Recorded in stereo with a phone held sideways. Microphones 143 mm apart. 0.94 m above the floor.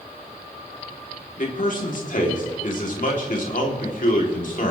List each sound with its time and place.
1.4 s a man speaking: 60° left (ahead or behind), 3 m